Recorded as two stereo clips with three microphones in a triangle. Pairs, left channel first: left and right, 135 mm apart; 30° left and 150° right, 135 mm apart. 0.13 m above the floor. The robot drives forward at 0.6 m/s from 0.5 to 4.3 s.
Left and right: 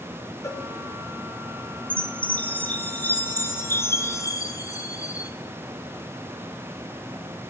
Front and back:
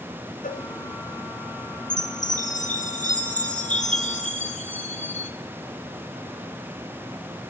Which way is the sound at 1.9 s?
10° left.